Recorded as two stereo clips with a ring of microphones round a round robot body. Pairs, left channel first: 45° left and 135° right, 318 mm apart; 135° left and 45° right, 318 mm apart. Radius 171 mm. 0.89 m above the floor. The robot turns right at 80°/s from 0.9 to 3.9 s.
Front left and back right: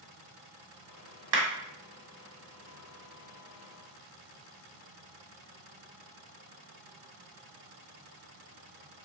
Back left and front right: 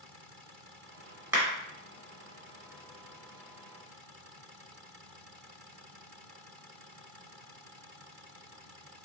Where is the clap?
130° right, 1.2 m; by 1.5 s 115° right, 1.2 m.